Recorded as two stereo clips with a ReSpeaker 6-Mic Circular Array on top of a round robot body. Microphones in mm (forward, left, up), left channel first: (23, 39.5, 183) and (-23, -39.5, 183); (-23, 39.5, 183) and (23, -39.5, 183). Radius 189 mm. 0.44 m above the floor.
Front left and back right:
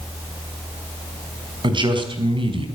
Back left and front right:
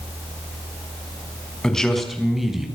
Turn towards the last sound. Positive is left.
turn(degrees=-145)